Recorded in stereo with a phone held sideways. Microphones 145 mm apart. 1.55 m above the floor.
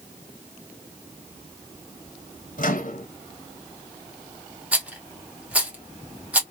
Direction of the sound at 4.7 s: 10° right (ahead or behind).